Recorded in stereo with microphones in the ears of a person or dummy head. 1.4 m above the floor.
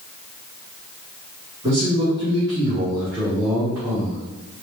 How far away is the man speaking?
About 1.5 m.